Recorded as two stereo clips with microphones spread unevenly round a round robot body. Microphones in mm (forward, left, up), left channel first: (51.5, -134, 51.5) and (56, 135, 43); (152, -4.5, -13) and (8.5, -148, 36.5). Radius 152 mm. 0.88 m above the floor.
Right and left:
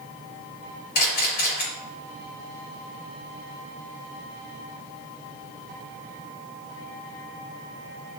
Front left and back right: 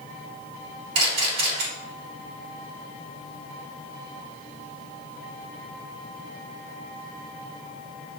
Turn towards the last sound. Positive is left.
turn(degrees=-150)